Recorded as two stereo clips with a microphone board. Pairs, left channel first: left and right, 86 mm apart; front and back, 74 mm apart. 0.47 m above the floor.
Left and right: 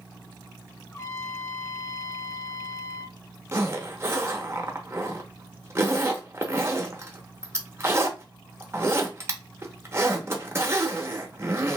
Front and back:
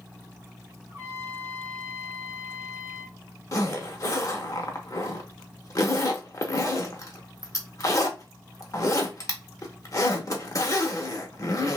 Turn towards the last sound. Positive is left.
turn(degrees=-35)